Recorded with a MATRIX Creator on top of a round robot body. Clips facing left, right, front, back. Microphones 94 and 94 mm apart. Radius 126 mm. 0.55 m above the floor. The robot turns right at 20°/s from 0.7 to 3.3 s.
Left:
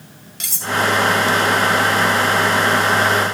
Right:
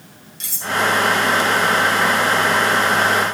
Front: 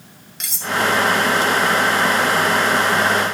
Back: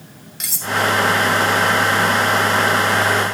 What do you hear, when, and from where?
0.4 s cutlery clinking: 90° left, 1.3 m; by 0.7 s 95° left, 1.3 m